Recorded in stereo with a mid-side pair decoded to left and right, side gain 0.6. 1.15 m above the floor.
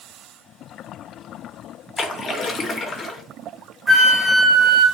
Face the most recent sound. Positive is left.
turn(degrees=-15)